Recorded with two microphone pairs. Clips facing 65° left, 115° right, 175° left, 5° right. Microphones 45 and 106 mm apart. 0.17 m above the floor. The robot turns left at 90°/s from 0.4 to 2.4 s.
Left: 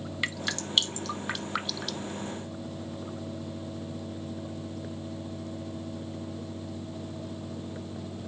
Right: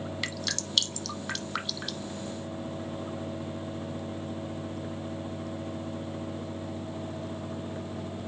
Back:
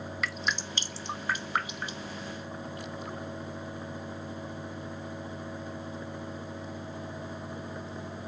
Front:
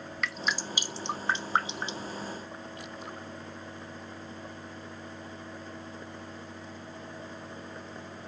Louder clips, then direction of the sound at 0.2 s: Left 2 dB, front 1 dB; 95° left.